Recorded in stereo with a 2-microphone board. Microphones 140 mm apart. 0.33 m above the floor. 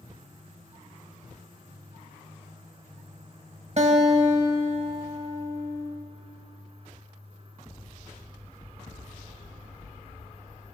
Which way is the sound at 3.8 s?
50° right (ahead or behind).